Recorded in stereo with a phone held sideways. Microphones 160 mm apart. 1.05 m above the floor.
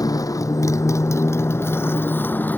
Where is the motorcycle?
20° left (ahead or behind); by 2.6 s 10° left (ahead or behind).